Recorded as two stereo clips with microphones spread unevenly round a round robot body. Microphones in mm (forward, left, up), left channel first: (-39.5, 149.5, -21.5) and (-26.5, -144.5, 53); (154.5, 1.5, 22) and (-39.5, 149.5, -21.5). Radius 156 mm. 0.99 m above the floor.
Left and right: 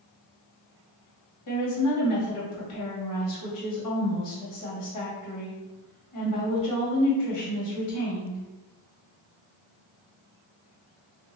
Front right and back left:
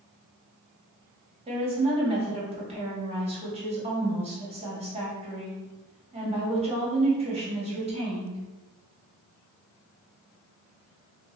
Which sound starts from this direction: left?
A woman speaking, at 1.5 s.